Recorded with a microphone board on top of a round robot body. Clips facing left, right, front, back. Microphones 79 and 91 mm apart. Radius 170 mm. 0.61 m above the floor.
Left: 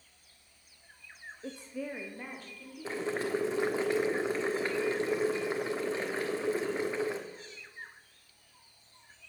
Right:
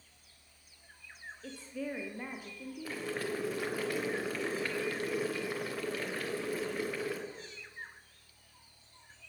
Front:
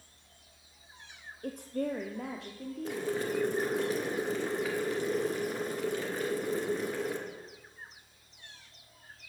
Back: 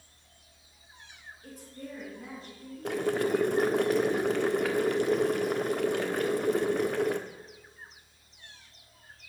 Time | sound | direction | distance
1.4 | a woman speaking | 25° left | 1.0 m
2.9 | boiling | 155° left | 1.3 m